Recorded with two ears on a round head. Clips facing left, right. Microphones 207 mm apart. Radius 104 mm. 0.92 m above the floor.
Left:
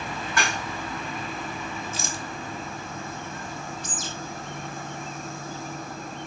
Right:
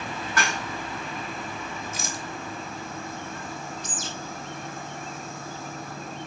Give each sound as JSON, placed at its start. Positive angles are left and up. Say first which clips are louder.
{"t": 0.4, "sound": "dishes clattering", "louder": "even", "side_deg": 25, "distance_m": 4.0}
{"t": 1.9, "sound": "a rattle", "louder": "left 1 dB", "side_deg": 25, "distance_m": 1.1}
{"t": 3.8, "sound": "a bird", "louder": "even", "side_deg": 75, "distance_m": 2.5}